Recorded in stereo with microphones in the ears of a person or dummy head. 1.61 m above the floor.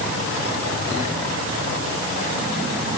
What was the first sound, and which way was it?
Only background noise.